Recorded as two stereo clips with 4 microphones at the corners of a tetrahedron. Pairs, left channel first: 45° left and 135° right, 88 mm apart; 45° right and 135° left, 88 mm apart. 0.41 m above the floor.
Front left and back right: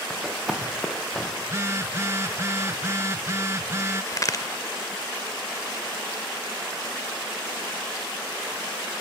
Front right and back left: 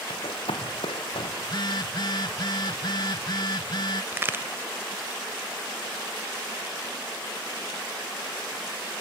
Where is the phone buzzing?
75° right, 0.6 m.